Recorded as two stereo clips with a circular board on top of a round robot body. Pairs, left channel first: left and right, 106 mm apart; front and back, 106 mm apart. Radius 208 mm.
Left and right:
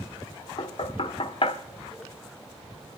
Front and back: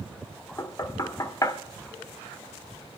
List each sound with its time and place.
0.6 s knocking: 55° left, 1.3 m